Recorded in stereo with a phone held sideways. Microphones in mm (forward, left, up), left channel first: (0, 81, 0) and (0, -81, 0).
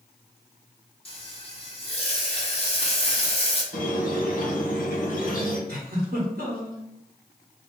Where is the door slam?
No door slam in this recording.